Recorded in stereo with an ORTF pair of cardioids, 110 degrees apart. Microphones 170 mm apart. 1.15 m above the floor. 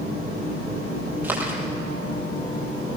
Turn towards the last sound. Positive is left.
turn(degrees=-15)